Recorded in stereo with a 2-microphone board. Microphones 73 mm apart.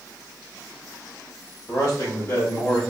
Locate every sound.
1.7 s a man speaking: 50° left (ahead or behind), 2.0 m; by 2.8 s 30° left (ahead or behind), 2.5 m